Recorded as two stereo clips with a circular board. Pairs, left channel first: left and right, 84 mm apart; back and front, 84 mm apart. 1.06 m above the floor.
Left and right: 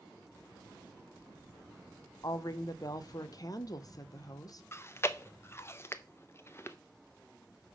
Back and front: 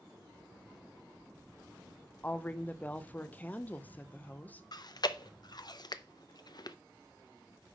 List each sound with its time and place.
2.2 s a woman speaking: 115° left, 0.7 m
4.7 s chewing: 150° left, 0.5 m